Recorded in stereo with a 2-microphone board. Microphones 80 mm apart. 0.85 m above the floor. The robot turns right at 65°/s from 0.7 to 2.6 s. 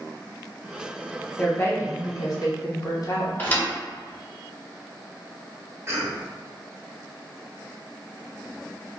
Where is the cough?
30° right (ahead or behind), 0.6 m.